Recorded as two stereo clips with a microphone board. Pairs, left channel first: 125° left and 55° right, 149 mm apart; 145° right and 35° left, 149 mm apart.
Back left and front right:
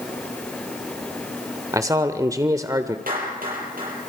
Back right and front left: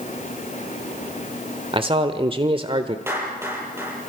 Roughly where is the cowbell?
No cowbell in this recording.